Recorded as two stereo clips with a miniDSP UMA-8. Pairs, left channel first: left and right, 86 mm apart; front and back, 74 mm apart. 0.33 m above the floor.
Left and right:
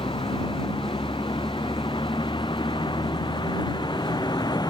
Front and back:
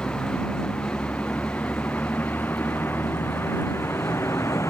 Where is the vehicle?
75° left; by 4.7 s 50° left.